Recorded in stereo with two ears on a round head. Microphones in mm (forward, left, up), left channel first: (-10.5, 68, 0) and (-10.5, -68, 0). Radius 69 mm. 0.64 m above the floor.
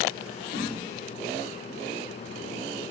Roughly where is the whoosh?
Left.